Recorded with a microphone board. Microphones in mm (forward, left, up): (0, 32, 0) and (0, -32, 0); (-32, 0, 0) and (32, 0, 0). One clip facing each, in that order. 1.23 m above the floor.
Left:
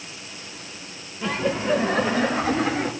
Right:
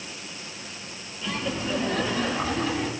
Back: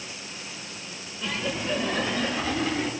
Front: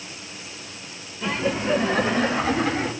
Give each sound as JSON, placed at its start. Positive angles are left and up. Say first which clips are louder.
{"t": 1.2, "sound": "laughter", "louder": "left 6 dB, front 6 dB", "azimuth_deg": 65, "distance_m": 1.5}